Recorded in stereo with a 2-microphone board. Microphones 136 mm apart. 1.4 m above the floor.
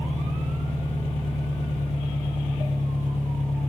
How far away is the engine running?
About 2.5 m.